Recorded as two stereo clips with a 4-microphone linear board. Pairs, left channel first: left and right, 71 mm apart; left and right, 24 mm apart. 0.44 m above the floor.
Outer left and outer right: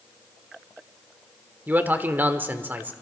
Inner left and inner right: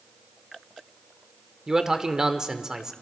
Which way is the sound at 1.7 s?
25° right (ahead or behind).